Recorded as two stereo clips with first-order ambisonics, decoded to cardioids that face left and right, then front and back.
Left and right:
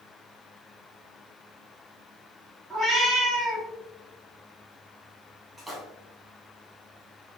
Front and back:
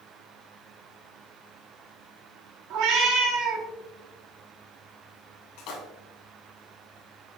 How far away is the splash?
About 1.7 m.